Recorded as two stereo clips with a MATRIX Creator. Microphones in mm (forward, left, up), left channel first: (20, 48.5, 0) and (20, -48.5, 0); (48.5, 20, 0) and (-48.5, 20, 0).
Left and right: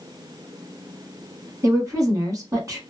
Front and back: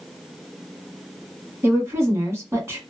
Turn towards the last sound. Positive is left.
turn(degrees=-130)